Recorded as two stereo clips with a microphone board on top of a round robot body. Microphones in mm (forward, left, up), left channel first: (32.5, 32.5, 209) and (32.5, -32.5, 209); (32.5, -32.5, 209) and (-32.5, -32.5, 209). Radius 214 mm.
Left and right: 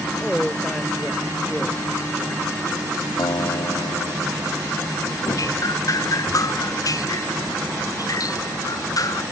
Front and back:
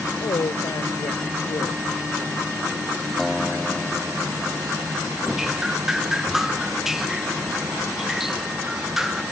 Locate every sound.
0.2 s a woman speaking: straight ahead
3.2 s a guitar: 85° left
5.2 s dripping: 95° left